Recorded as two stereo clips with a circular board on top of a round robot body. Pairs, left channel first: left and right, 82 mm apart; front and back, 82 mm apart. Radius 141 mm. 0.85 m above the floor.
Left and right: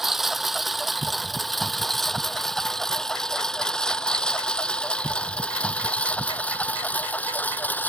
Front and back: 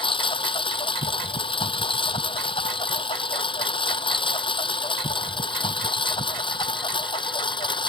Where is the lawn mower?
Straight ahead; by 7.9 s 20° left.